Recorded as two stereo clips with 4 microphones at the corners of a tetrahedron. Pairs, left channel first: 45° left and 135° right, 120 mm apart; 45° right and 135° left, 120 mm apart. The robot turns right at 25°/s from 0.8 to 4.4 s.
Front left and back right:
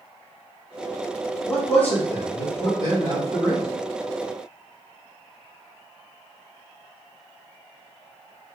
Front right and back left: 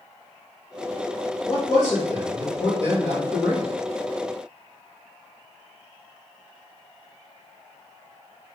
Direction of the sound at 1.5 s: 30° right.